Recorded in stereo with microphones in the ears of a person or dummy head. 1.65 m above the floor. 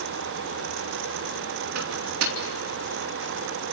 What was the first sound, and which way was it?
A microwave, 80° right.